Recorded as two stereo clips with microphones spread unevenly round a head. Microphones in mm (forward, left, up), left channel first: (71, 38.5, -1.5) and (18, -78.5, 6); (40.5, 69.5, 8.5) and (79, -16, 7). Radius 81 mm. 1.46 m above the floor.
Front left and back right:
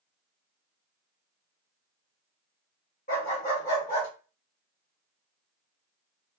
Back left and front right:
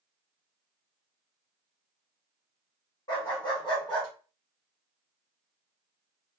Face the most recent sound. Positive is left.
turn(degrees=85)